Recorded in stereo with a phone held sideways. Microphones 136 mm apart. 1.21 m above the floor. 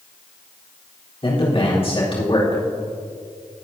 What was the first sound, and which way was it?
A man speaking, 40° left (ahead or behind).